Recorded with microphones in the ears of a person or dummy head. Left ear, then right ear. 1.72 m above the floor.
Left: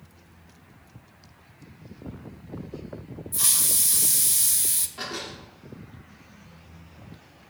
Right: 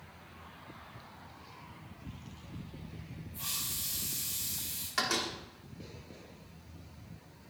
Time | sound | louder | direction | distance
3.3 | a hiss | left 12 dB | 70° left (ahead or behind) | 1.0 m
5.0 | a door slam | right 2 dB | 60° right (ahead or behind) | 2.5 m